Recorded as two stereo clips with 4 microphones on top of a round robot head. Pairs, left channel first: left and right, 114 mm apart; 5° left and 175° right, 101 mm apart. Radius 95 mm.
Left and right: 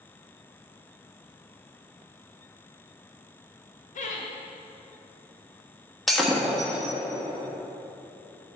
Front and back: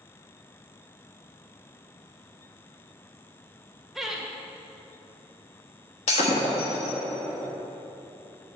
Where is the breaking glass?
Straight ahead, 1.3 m.